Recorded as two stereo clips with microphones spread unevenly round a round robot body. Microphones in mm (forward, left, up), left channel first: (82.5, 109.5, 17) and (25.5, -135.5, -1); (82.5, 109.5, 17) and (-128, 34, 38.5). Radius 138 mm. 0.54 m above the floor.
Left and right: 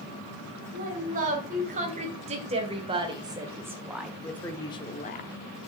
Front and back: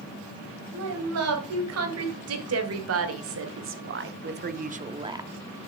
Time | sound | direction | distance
0.7 | a woman speaking | 165° right | 3 m